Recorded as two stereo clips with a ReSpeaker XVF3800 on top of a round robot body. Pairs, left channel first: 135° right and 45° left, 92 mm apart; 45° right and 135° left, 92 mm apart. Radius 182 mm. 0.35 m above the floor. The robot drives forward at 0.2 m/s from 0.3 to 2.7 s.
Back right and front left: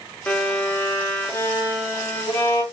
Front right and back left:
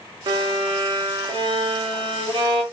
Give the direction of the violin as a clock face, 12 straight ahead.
7 o'clock.